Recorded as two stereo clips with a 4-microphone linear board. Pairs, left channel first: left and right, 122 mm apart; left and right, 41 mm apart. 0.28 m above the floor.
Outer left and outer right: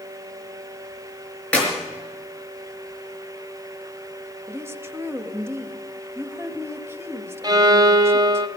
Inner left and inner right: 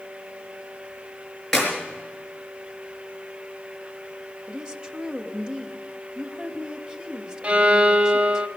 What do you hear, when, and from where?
1.5 s a clap: 10° left (ahead or behind), 4.5 m
4.5 s a woman speaking: 20° right (ahead or behind), 0.9 m
7.4 s a violin: 35° right (ahead or behind), 0.6 m